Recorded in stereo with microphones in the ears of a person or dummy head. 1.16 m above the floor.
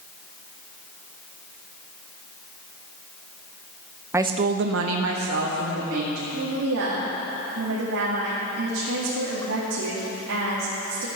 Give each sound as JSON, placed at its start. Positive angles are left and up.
{"t": 4.1, "sound": "a woman speaking", "side_deg": -10, "distance_m": 0.8}
{"t": 6.3, "sound": "a woman speaking", "side_deg": -80, "distance_m": 1.9}